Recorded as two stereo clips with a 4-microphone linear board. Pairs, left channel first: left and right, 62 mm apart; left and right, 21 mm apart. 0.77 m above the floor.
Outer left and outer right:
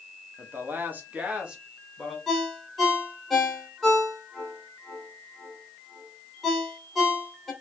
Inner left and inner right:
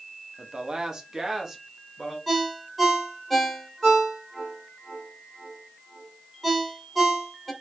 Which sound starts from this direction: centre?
A ringtone, at 2.3 s.